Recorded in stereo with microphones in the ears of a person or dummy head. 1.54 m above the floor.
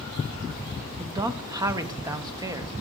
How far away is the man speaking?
About 0.7 m.